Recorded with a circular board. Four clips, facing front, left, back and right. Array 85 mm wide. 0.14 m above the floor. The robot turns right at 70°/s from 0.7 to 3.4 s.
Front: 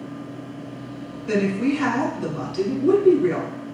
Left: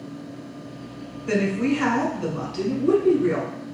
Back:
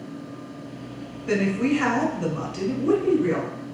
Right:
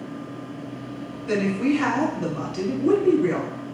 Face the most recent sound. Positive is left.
turn(degrees=-95)